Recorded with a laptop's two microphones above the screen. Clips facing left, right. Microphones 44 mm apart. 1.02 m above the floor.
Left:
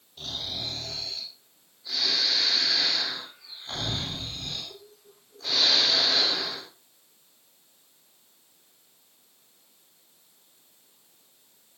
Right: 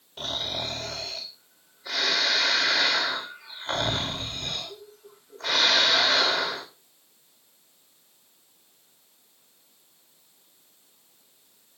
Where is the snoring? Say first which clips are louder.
Right 4 dB; 60° right (ahead or behind), 3 m.